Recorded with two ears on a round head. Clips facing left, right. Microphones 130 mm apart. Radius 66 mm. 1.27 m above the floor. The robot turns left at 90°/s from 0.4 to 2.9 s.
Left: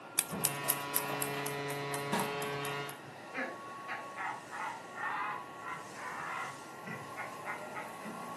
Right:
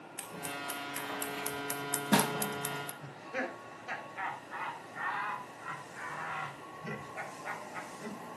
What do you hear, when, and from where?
0.2 s scissors: 75° left (ahead or behind), 1.1 m; by 2.9 s 35° right (ahead or behind), 1.1 m
3.0 s laughter: 45° right (ahead or behind), 5 m